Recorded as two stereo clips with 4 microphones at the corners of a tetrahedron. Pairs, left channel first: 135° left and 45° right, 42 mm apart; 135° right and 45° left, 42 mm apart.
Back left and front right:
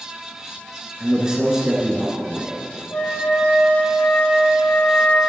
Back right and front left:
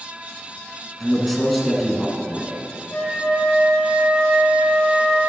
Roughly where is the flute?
Behind.